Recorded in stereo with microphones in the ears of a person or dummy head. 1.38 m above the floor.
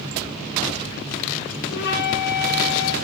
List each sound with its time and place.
1.7 s a flute: 55° left (ahead or behind), 2.5 m